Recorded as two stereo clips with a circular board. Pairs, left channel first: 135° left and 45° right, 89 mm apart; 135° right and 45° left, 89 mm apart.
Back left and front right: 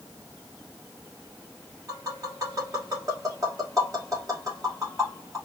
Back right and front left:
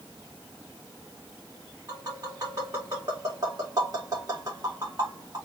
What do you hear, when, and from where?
1.9 s tapping: 5° left, 4.5 m